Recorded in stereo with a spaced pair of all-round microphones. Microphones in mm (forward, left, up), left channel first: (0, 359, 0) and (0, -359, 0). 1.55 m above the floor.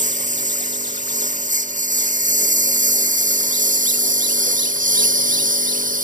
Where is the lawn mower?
10° right (ahead or behind).